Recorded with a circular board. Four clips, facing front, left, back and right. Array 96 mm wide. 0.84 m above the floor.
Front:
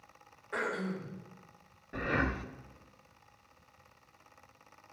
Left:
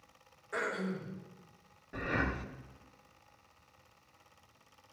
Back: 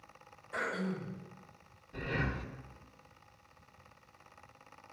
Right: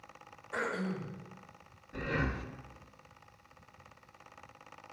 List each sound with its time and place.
0.5 s throat clearing: 20° left, 2.5 m
1.9 s breathing: 20° left, 0.8 m